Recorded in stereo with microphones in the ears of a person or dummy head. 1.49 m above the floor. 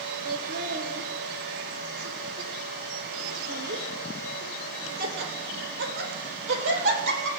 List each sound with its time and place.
0.2 s laughter: 50° right (ahead or behind), 3.5 m; by 7.3 s 80° right, 8 m